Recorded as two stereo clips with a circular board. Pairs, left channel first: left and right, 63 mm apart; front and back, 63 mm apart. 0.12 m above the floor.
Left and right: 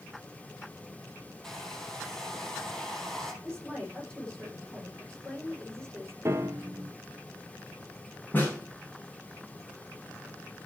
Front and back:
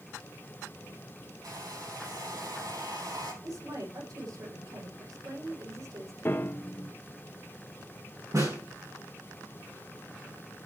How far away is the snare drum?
About 5.5 m.